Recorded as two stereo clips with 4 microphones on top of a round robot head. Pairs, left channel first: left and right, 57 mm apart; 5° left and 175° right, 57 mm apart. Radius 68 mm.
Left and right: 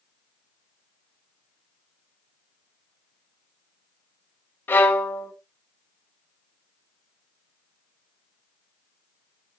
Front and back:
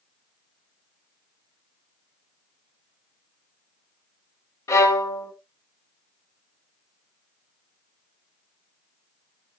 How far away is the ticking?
I don't hear ticking.